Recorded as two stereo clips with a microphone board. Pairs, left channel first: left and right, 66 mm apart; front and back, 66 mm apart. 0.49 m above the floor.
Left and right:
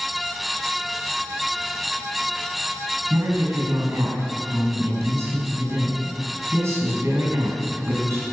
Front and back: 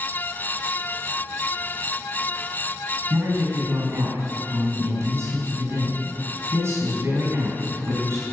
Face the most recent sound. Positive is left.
turn(degrees=-130)